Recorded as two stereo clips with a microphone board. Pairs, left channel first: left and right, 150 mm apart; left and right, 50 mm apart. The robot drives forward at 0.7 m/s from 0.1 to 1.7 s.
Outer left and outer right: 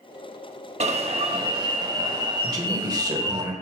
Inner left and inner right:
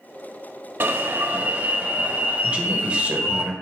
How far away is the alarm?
About 0.7 m.